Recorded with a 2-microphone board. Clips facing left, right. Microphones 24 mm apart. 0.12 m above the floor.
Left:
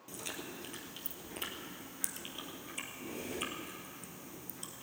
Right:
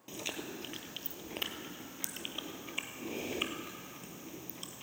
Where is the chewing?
30° right (ahead or behind), 1.1 m.